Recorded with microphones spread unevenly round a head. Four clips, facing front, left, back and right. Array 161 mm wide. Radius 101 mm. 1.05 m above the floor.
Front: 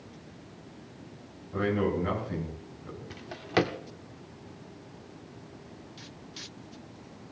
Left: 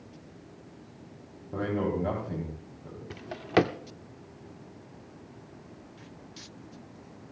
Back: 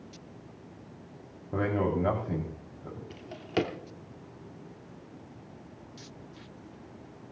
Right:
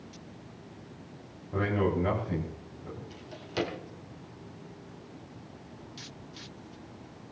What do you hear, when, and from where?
1.5 s a man speaking: 160° left, 6 m; by 3.0 s 170° left, 6.5 m
3.1 s a drawer: 90° left, 0.9 m